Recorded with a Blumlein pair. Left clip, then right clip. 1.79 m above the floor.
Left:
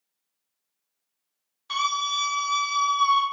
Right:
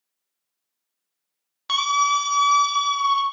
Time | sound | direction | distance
1.7 | a scream | 40° right | 0.7 m